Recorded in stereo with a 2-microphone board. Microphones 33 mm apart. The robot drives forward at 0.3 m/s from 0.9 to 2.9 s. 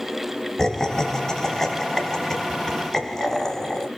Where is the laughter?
15° left (ahead or behind), 1.3 m; by 3.9 s 10° left (ahead or behind), 1.7 m.